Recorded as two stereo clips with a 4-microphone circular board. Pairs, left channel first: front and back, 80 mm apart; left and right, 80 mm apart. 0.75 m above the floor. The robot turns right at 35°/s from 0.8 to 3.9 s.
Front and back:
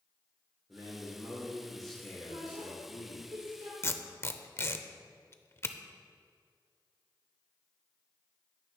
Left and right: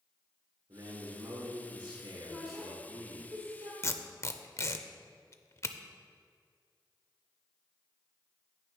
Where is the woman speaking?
175° left, 2.0 m; by 3.7 s 135° right, 2.0 m.